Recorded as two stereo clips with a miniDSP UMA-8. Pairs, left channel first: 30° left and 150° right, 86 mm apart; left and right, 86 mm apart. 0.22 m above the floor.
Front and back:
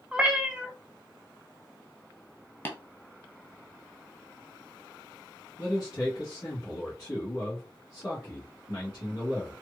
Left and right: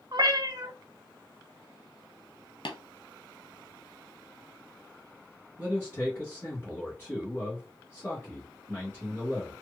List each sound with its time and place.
0.1 s a cat meowing: 70° right, 0.6 m
2.6 s tapping: 95° left, 0.9 m
5.6 s a man speaking: 40° left, 1.4 m